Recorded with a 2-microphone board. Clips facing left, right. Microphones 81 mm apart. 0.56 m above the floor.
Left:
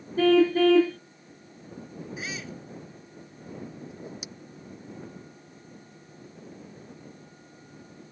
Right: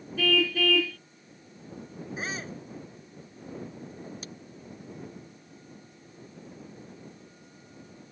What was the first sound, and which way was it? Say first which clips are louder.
A car horn: left 8 dB; 35° left (ahead or behind).